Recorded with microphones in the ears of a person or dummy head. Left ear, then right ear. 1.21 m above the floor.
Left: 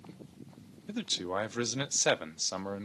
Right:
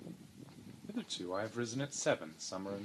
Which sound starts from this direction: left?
A man speaking, at 0.9 s.